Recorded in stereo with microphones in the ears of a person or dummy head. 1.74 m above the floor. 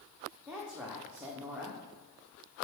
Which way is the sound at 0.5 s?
Centre (ahead or behind).